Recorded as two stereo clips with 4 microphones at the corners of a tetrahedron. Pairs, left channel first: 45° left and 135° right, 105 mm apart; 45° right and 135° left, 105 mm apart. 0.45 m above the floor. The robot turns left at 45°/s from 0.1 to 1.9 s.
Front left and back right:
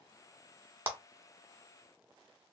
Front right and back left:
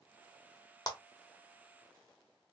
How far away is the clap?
About 1.0 m.